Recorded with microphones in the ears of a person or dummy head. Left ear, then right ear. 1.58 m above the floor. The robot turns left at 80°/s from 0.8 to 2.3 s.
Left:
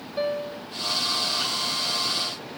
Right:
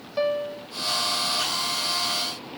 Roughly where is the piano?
Right.